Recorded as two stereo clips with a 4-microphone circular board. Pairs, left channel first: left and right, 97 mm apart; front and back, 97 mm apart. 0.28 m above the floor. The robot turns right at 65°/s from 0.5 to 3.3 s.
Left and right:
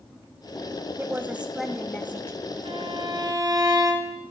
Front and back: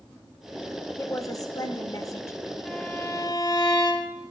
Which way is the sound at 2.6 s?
85° right.